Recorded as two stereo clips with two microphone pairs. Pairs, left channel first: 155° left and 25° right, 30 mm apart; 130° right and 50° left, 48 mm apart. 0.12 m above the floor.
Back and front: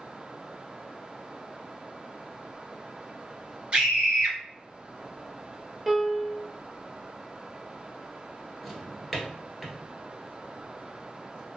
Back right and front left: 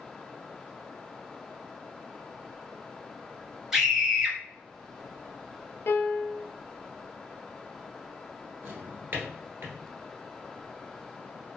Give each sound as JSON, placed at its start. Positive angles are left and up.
{"t": 3.7, "sound": "a scream", "azimuth_deg": -25, "distance_m": 1.4}
{"t": 5.9, "sound": "a piano", "azimuth_deg": -110, "distance_m": 0.7}
{"t": 8.6, "sound": "a drawer", "azimuth_deg": 60, "distance_m": 1.3}